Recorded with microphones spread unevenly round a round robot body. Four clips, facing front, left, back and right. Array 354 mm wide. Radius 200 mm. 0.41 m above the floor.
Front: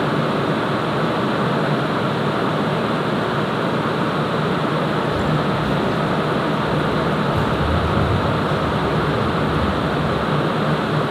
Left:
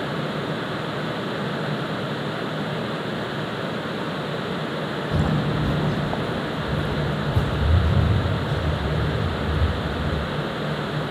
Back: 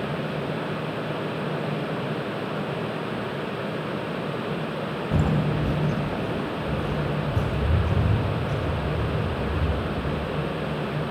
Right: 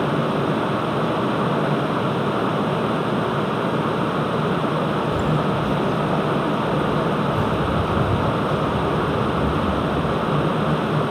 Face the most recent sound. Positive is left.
turn(degrees=110)